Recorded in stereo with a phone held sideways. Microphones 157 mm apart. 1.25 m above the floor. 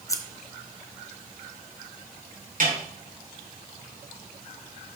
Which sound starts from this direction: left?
Scissors, at 0.1 s.